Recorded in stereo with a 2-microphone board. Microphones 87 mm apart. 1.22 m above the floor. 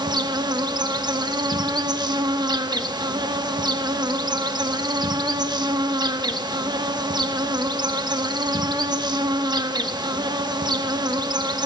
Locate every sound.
0.0 s an insect: 55° right (ahead or behind), 1.1 m